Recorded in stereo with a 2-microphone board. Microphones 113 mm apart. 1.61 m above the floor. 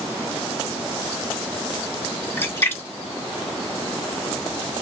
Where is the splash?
20° left (ahead or behind), 0.9 m.